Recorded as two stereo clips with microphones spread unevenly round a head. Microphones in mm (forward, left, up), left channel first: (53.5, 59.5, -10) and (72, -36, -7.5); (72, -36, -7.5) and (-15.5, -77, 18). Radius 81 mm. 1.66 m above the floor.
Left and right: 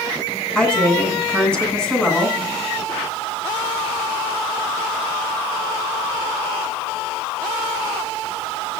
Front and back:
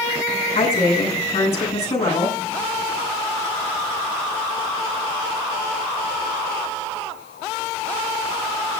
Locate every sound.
0.6 s a woman speaking: 20° left, 9 m